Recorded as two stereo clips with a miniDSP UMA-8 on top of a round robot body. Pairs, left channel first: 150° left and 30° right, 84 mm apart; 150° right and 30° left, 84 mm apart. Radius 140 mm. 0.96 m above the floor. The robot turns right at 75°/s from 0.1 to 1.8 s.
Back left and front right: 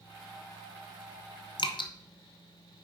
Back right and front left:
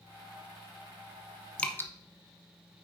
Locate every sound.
1.6 s dripping: 130° left, 1.1 m; by 1.9 s 150° left, 1.1 m